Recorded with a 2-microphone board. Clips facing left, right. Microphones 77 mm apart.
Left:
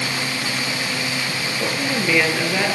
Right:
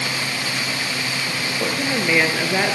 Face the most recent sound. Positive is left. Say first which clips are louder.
# even
turn(degrees=-15)  # may be behind; listen again after turning